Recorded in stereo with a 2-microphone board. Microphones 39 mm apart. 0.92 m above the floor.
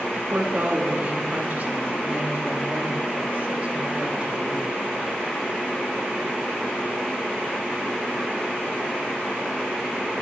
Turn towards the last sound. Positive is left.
turn(degrees=-25)  # may be behind; listen again after turning